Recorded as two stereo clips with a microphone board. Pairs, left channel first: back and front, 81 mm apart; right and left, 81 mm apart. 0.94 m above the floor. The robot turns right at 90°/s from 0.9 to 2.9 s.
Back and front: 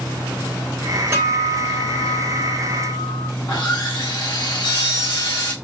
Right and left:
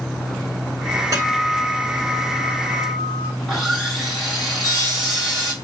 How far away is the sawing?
About 1.4 m.